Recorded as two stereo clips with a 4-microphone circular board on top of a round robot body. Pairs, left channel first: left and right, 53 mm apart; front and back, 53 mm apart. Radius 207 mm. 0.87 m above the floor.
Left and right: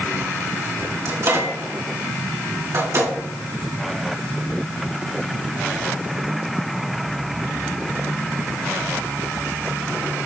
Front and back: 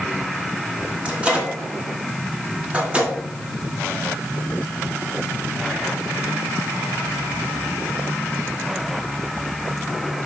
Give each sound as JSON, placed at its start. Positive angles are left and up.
{"t": 1.1, "sound": "a microwave", "azimuth_deg": -115, "distance_m": 2.5}